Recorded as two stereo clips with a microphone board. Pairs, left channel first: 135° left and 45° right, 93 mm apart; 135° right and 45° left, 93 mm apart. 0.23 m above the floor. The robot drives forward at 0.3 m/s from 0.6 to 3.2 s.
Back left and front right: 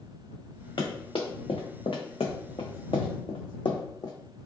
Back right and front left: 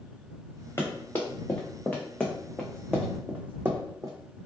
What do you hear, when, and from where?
0.8 s running footsteps: 165° left, 1.1 m; by 4.1 s 90° left, 0.8 m